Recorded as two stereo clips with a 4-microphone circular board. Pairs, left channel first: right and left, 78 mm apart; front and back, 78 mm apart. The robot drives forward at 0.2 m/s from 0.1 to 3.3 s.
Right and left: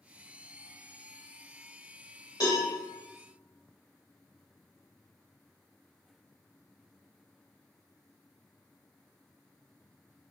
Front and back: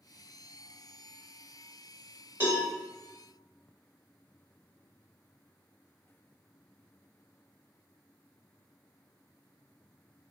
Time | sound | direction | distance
2.4 | a cowbell | 120° right | 1.0 m